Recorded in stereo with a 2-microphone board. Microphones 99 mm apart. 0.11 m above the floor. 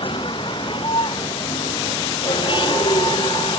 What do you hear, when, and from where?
0.0 s a vehicle: 55° left (ahead or behind)